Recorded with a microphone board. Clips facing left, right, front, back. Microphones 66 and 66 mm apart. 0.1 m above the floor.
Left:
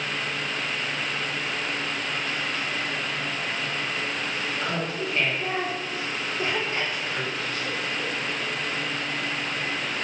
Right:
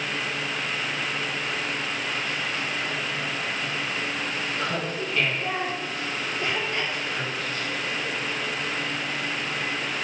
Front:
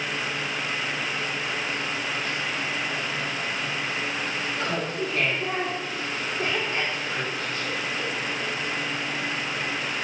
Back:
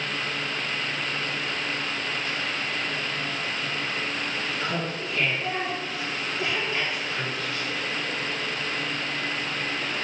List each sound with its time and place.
4.6 s laughter: 10° left, 2.5 m; by 8.2 s 65° left, 4.5 m